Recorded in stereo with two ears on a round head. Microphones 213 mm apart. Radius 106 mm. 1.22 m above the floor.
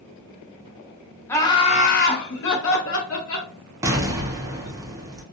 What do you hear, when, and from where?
1.3 s laughter: 10° left (ahead or behind), 0.6 m; by 3.5 s 65° left (ahead or behind), 1.1 m
3.8 s an explosion: 15° right (ahead or behind), 0.5 m